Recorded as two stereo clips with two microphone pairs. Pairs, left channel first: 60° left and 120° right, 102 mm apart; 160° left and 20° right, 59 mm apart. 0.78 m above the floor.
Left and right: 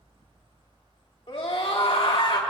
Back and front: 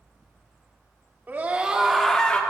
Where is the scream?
35° left, 1.8 m; by 2.4 s 95° left, 1.6 m.